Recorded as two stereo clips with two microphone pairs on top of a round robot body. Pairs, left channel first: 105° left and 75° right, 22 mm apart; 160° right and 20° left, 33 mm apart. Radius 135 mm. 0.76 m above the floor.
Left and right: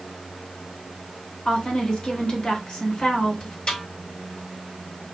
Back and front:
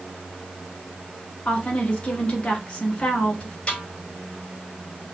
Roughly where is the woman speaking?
Behind left.